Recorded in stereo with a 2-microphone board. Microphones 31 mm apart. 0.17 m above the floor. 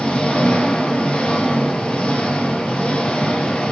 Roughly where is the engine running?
Left.